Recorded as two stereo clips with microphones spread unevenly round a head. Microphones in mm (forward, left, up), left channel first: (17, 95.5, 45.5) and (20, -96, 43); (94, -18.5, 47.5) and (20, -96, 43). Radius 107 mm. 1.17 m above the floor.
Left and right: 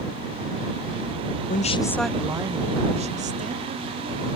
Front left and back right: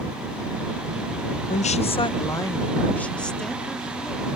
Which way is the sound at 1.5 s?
45° left.